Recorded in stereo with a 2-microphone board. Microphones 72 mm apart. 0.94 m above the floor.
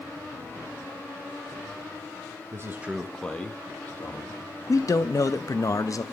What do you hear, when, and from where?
2.5 s a man speaking: 45° right (ahead or behind), 0.9 m; by 4.4 s 35° left (ahead or behind), 2.5 m
4.7 s a man speaking: 45° left (ahead or behind), 0.6 m